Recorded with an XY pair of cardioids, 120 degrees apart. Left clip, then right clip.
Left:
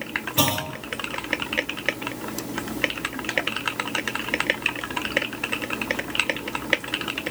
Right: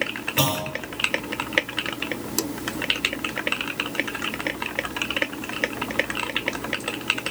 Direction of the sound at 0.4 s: 15° left.